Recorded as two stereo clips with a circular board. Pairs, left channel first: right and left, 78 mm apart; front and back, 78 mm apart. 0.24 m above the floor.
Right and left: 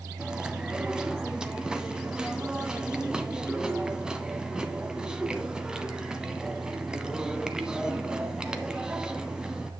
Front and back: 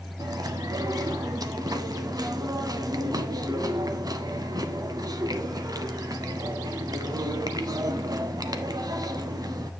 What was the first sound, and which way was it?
Chewing, 170° left.